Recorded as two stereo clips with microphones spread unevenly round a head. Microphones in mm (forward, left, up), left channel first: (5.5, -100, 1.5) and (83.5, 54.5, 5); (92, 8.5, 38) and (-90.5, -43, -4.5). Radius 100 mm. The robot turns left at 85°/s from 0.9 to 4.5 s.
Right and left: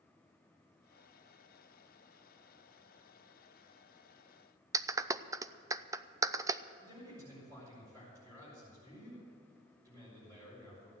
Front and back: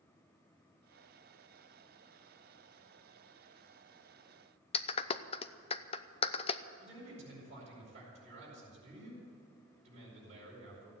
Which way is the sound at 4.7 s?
Straight ahead.